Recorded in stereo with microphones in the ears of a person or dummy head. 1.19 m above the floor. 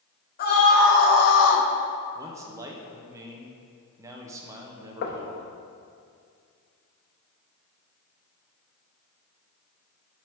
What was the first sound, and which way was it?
A scream, 50° left (ahead or behind).